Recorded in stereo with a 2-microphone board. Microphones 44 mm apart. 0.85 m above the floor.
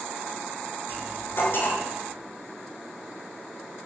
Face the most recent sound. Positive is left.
turn(degrees=60)  # may be behind; listen again after turning